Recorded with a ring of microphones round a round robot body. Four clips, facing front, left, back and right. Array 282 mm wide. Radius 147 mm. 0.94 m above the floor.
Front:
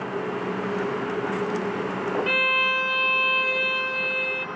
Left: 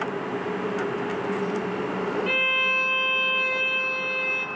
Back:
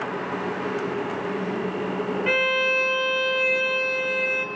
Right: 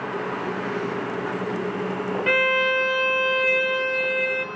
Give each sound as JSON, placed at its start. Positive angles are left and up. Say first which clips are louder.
{"t": 2.3, "sound": "a violin", "louder": "right 6 dB, back 2 dB", "azimuth_deg": -110, "distance_m": 2.0}